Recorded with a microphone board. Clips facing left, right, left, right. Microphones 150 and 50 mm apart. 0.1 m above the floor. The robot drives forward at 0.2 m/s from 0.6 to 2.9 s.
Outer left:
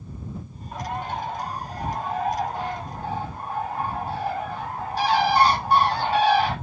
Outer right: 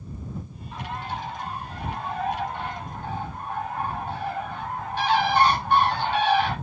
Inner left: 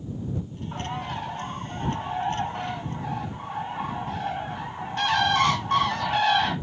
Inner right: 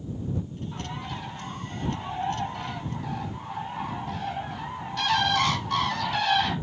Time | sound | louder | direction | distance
0.7 | a bird | outer left 3 dB, inner left 7 dB | 55° left (ahead or behind) | 0.9 m